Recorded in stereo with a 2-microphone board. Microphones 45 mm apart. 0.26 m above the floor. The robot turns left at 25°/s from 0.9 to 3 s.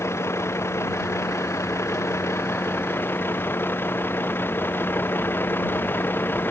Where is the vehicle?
70° left (ahead or behind); by 6.5 s 55° left (ahead or behind).